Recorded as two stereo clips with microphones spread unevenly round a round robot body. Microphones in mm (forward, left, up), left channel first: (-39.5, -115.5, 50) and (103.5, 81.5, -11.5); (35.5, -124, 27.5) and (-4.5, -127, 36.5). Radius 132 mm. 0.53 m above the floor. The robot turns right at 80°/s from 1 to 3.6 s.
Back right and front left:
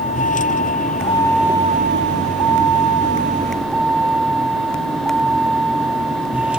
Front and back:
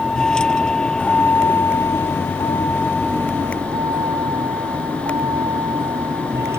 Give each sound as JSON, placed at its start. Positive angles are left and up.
{"t": 0.0, "sound": "a vehicle", "azimuth_deg": -65}